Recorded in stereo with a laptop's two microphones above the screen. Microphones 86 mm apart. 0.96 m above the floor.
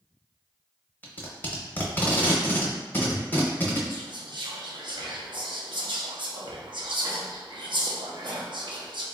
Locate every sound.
1.0 s tape being pulled: 20° left (ahead or behind), 0.8 m
3.9 s whispering: 65° right (ahead or behind), 0.6 m